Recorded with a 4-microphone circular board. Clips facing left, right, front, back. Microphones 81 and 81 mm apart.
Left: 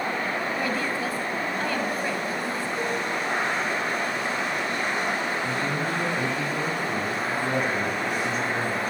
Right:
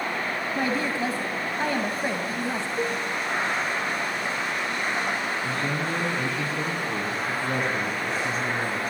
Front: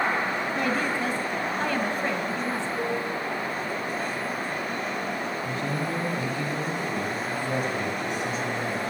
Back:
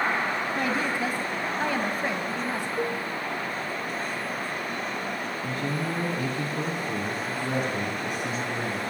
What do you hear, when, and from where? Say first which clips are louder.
0.6 s a woman speaking: right 1 dB, front 1 dB; 120° right, 1.2 m
2.8 s a cowbell: right 1 dB, even; 175° left, 1.2 m
5.4 s a man speaking: left 1 dB, even; 160° left, 2.5 m